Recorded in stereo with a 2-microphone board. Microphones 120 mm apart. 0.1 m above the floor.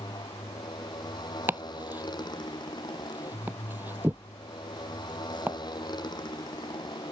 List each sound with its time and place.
0.0 s a motorcycle: 35° left (ahead or behind)
1.5 s chopping: 15° right (ahead or behind)